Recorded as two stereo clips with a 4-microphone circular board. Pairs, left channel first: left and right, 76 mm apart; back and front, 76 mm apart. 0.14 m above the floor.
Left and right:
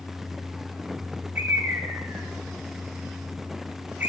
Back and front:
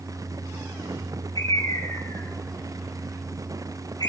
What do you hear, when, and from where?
1.4 s a bird: 155° right, 8 m